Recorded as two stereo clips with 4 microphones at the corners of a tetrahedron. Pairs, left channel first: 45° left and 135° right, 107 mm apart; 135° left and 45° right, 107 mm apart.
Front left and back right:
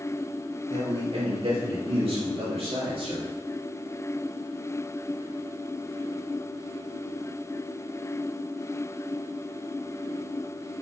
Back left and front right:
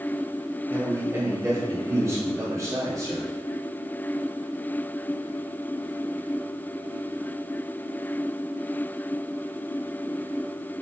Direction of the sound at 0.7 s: 110° right.